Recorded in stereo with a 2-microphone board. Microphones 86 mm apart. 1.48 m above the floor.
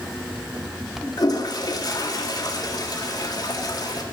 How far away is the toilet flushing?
About 1.8 m.